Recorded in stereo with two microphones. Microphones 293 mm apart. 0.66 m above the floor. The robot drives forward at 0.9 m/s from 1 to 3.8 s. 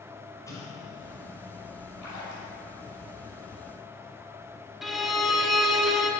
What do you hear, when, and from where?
0.5 s an explosion: 10° left (ahead or behind), 3 m
2.0 s a splash: 70° left (ahead or behind), 3 m; by 2.5 s 65° left (ahead or behind), 3.5 m
4.8 s a violin: centre (ahead or behind), 1.0 m